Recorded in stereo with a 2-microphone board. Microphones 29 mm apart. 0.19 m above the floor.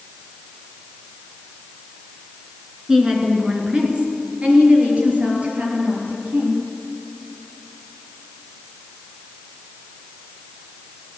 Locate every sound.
2.9 s a woman speaking: 10° right (ahead or behind), 3 m; by 6.6 s 60° right (ahead or behind), 5.5 m